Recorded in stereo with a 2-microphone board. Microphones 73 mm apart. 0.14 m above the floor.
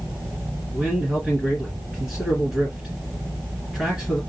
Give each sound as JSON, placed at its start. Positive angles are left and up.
{"t": 0.7, "sound": "a man speaking", "side_deg": -5, "distance_m": 2.0}